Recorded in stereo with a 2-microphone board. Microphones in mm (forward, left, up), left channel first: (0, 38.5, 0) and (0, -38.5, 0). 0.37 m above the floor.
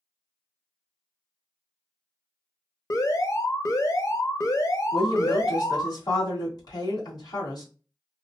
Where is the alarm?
50° left (ahead or behind), 0.7 m.